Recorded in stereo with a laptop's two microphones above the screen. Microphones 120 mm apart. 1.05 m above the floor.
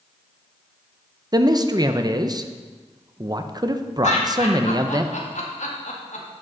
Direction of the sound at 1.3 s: 35° right (ahead or behind).